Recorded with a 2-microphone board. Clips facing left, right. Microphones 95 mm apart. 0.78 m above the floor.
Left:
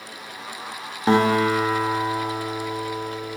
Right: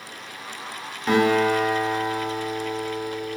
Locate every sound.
1.1 s a guitar: 35° left (ahead or behind), 0.6 m